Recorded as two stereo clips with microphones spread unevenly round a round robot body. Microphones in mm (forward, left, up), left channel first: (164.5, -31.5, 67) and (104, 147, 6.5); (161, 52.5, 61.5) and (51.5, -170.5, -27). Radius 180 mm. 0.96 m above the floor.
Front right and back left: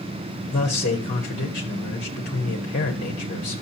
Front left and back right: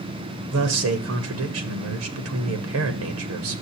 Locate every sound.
0.5 s a man speaking: 140° right, 0.9 m